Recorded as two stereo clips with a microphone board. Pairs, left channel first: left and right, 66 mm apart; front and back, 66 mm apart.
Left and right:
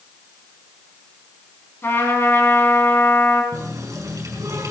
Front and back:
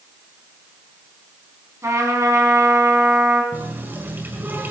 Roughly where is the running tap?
Behind right.